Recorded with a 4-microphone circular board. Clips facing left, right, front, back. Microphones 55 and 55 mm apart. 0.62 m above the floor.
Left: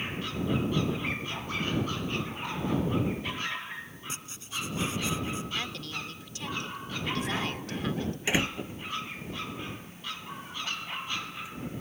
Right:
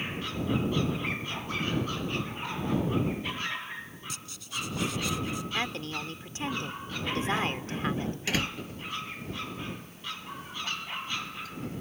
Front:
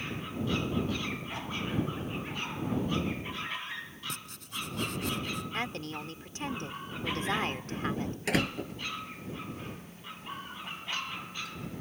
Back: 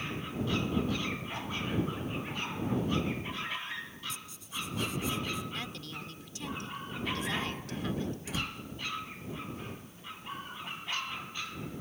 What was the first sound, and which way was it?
Writing, 25° left.